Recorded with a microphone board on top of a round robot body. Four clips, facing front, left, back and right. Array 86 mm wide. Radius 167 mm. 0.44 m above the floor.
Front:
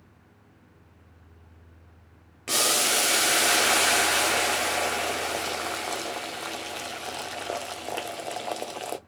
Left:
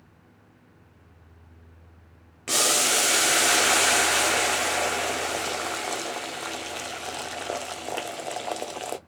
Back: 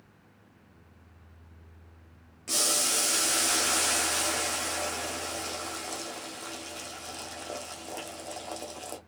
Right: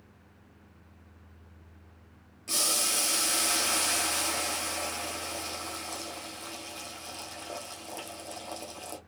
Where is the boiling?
50° left, 1.0 m.